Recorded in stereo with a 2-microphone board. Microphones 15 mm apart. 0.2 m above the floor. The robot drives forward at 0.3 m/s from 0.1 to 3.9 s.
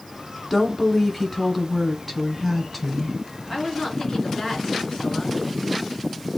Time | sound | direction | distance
0.5 | a woman speaking | 10° left (ahead or behind) | 1.5 m
3.5 | a woman speaking | 35° left (ahead or behind) | 2.5 m